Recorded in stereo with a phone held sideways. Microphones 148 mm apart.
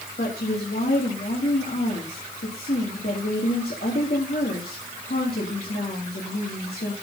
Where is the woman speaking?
70° left (ahead or behind), 2.5 m.